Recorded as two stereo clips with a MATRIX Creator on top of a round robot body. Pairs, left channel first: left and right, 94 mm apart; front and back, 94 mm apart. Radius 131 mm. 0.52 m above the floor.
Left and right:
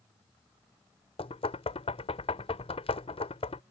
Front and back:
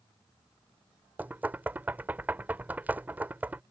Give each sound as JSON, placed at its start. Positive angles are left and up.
{"t": 1.2, "sound": "knocking", "azimuth_deg": 105}